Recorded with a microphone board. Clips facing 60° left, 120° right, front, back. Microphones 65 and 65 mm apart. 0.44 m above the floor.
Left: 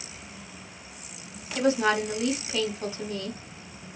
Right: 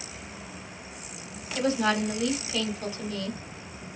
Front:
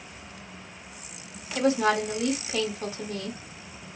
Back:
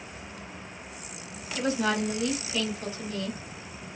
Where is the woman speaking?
5° right, 3 m.